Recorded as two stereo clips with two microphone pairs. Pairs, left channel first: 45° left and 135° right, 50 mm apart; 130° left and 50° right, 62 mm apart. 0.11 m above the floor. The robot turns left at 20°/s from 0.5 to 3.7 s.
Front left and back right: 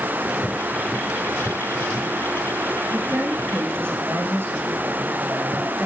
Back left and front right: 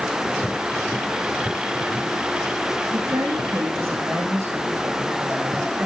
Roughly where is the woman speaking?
Right.